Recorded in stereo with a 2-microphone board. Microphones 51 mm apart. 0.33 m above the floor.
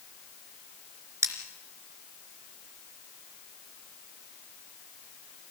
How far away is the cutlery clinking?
About 3.5 m.